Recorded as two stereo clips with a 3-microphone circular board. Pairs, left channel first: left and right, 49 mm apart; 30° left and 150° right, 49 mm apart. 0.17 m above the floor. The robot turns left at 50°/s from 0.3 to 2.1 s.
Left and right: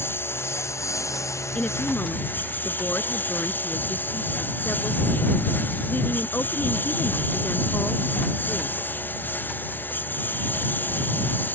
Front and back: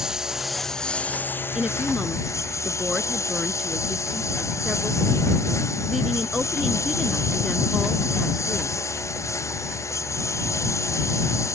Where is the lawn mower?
130° left; by 11.6 s 40° left.